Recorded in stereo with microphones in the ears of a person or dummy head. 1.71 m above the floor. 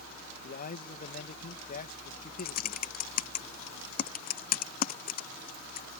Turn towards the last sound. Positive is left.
turn(degrees=45)  # may be behind; listen again after turning